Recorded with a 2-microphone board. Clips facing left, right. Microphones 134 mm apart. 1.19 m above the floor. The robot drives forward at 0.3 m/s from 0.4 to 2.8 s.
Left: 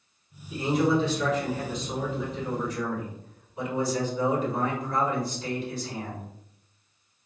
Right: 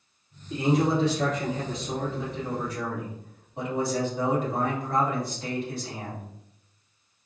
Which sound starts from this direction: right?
A man speaking, at 0.5 s.